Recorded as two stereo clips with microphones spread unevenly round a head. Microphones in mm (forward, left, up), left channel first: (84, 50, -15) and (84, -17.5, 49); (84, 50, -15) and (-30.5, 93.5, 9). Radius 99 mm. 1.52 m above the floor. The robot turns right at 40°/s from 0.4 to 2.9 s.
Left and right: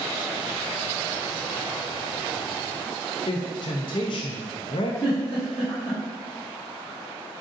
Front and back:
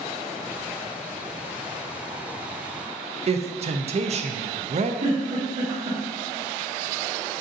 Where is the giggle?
155° left, 1.7 m.